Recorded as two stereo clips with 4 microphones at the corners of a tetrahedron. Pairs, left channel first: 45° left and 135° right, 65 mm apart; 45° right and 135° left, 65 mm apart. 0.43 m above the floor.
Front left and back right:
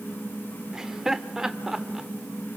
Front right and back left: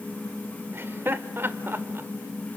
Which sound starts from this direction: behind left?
Laughter, at 0.7 s.